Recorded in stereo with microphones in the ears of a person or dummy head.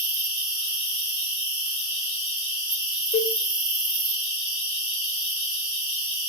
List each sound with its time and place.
0.0 s an insect: 30° left (ahead or behind), 4 m
3.1 s a cowbell: 25° left (ahead or behind), 4 m